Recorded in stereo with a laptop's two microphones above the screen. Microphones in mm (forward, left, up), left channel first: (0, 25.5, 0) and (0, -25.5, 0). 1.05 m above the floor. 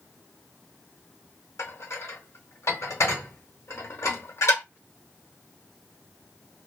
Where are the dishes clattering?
60° left (ahead or behind), 0.9 m.